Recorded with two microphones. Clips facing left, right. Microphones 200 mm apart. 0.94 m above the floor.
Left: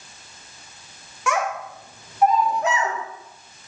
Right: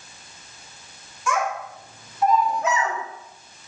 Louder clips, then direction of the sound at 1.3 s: Left 1 dB; 70° left (ahead or behind).